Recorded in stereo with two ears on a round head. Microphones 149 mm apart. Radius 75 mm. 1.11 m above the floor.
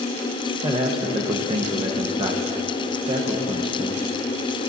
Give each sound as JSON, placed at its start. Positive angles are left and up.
{"t": 0.6, "sound": "a man speaking", "side_deg": -30, "distance_m": 0.8}